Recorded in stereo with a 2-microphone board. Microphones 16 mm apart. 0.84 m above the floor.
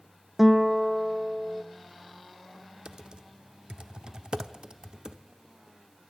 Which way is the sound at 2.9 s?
60° right (ahead or behind).